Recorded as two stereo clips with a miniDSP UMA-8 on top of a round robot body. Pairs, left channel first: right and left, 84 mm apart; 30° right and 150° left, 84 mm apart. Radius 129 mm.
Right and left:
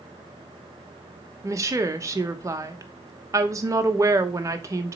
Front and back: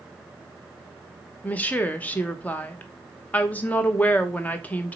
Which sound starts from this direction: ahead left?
A woman speaking, at 1.4 s.